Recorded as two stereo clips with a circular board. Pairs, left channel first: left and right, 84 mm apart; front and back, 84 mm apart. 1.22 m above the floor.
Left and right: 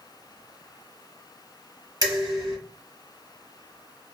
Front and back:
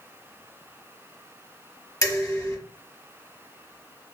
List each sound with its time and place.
2.0 s dishes clattering: 50° right, 1.2 m